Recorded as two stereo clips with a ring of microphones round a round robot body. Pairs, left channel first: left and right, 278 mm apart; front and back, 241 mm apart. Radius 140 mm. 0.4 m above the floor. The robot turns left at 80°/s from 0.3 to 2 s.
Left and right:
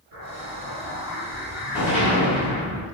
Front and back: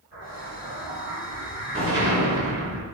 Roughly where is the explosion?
Right.